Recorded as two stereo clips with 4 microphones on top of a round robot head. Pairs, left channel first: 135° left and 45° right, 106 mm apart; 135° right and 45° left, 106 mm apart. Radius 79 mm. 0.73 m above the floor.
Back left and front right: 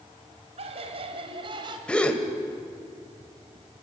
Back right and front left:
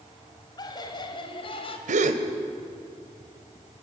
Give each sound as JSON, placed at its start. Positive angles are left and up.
{"t": 0.6, "sound": "laughter", "azimuth_deg": -80, "distance_m": 4.0}
{"t": 1.9, "sound": "a gasp", "azimuth_deg": 55, "distance_m": 1.9}